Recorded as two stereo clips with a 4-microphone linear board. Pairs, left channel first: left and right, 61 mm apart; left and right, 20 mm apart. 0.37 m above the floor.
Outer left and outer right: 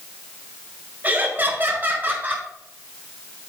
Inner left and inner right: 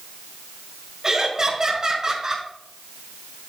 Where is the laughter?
30° right (ahead or behind), 1.9 m; by 2.5 s 25° right (ahead or behind), 1.5 m.